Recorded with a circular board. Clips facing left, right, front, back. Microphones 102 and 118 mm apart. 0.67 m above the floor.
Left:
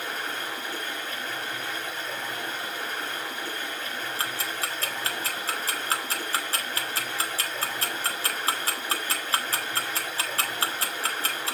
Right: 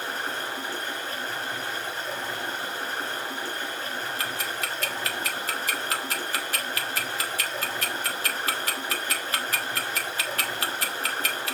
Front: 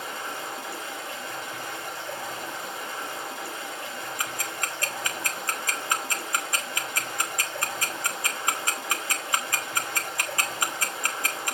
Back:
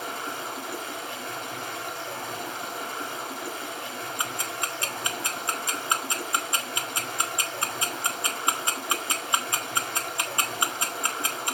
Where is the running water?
145° right, 5 m.